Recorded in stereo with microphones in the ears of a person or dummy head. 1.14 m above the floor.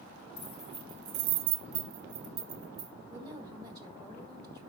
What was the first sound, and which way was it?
Keys jangling, 15° left (ahead or behind).